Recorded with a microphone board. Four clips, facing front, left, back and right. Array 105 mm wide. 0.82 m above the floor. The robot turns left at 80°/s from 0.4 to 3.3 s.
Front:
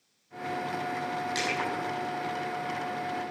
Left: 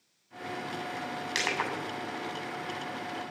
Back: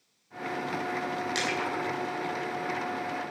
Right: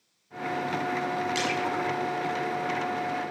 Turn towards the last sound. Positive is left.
turn(degrees=-55)